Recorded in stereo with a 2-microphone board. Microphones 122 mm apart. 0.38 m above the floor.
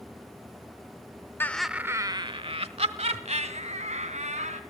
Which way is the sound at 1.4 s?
20° left (ahead or behind).